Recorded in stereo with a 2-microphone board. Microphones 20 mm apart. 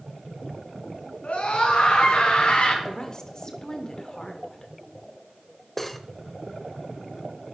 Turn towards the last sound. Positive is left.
turn(degrees=10)  # may be behind; listen again after turning